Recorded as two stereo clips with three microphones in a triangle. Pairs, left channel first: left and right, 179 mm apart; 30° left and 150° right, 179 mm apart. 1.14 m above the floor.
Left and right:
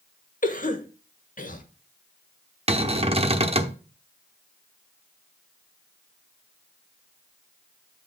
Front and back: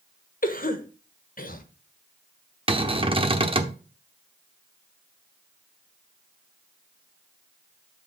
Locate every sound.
0.4 s a cough: 55° left, 1.4 m
2.7 s a cupboard door: 115° right, 0.8 m